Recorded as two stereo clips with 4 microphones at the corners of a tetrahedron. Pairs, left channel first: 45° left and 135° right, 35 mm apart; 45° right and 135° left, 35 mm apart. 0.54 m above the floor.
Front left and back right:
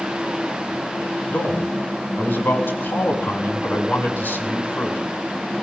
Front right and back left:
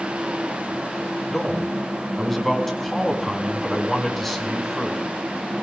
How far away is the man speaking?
About 4.5 m.